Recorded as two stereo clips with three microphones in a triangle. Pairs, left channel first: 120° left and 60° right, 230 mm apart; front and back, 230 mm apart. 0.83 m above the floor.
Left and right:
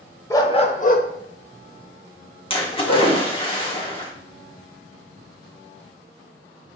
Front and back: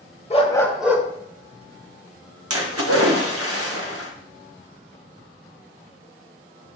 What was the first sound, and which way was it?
A dog barking, 45° left.